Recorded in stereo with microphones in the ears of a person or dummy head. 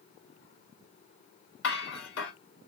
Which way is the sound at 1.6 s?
85° left.